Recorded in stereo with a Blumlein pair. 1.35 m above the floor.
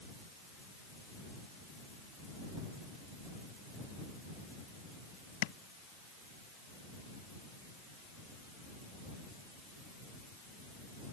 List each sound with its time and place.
5.4 s tapping: 50° left